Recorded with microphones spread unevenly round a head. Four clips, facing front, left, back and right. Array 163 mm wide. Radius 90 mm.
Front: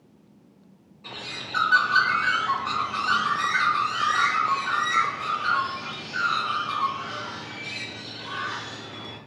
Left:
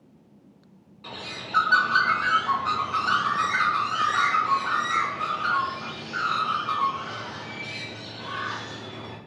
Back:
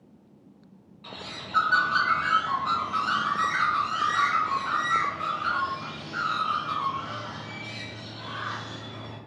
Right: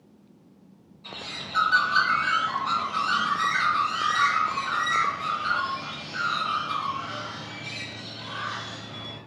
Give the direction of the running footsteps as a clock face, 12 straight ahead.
No running footsteps in this recording.